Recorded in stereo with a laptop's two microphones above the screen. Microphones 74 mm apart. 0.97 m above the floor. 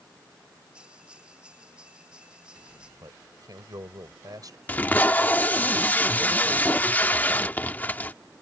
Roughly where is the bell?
Centre.